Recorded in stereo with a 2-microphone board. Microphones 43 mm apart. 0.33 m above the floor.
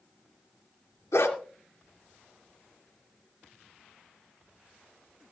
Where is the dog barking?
80° left, 2 m.